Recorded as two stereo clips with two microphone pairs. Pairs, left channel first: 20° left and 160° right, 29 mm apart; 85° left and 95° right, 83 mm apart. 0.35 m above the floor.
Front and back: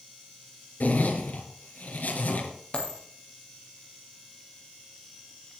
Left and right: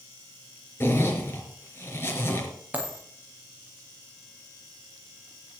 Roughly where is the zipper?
Ahead left.